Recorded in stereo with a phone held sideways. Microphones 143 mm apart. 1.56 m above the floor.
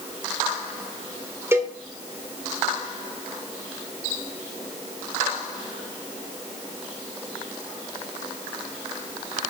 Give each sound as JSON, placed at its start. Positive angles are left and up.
{"t": 1.5, "sound": "a cowbell", "side_deg": -20, "distance_m": 3.0}